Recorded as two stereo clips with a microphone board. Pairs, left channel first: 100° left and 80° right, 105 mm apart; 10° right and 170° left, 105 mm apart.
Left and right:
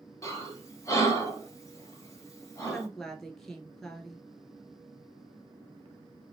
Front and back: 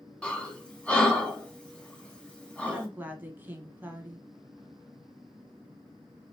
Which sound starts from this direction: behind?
A woman speaking, at 2.6 s.